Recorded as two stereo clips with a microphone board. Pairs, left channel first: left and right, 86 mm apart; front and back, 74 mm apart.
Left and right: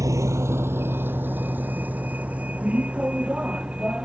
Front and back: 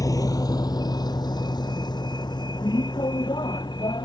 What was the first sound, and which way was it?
A vehicle, 40° right.